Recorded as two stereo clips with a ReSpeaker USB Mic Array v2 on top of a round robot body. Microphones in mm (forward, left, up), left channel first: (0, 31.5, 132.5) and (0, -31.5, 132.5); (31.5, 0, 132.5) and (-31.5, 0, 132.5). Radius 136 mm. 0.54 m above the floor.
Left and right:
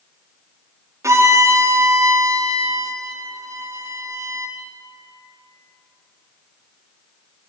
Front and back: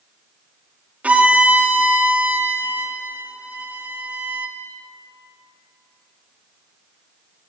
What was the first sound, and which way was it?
A violin, 115° right.